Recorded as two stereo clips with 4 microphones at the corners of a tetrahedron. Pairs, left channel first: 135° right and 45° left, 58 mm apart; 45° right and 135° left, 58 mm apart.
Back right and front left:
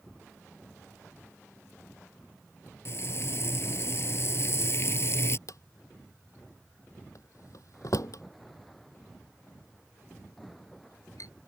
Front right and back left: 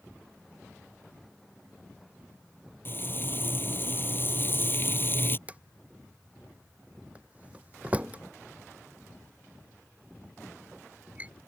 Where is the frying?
95° right.